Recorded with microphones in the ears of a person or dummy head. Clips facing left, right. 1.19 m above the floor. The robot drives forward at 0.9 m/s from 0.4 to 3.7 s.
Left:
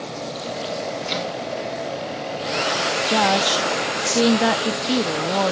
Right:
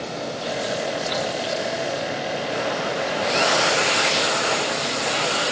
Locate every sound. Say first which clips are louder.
1.1 s chopping: right 1 dB; 30° left (ahead or behind); by 1.3 s 40° left (ahead or behind)
3.1 s a woman speaking: left 4 dB; 70° left (ahead or behind); by 5.5 s 85° left